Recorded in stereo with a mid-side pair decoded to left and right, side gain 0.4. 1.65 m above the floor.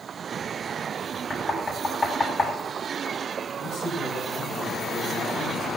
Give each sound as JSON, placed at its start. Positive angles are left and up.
{"t": 1.3, "sound": "knocking", "azimuth_deg": 35, "distance_m": 7.5}
{"t": 3.6, "sound": "a man speaking", "azimuth_deg": 55, "distance_m": 9.0}